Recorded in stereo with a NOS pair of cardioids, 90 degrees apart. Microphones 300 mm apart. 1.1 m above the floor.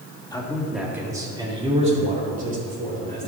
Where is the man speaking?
10° left, 1.8 m; by 3.3 s 30° right, 5.5 m.